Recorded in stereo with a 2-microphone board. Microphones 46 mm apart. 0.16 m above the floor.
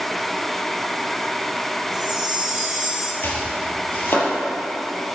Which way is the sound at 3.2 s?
45° left (ahead or behind).